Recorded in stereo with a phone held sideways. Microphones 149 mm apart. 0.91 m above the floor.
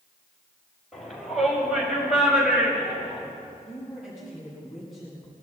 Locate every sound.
0.9 s a shout: centre (ahead or behind), 5.5 m; by 3.2 s 10° right (ahead or behind), 6.5 m
3.7 s a woman speaking: 5° right (ahead or behind), 6.5 m